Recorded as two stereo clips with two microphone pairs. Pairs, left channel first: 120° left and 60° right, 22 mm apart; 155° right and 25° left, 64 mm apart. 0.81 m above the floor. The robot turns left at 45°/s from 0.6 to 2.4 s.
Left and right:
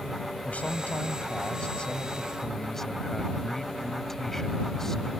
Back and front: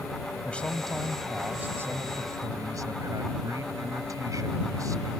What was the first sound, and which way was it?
A man speaking, 130° left.